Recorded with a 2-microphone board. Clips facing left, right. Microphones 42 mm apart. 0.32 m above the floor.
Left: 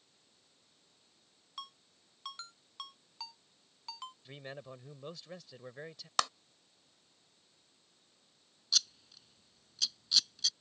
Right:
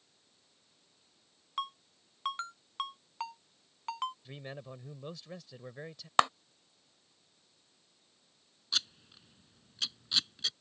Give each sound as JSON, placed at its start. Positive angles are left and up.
{"t": 1.6, "sound": "a ringtone", "side_deg": -40}
{"t": 4.2, "sound": "a man speaking", "side_deg": 0}
{"t": 6.2, "sound": "a clap", "side_deg": -30}
{"t": 8.7, "sound": "scissors", "side_deg": -30}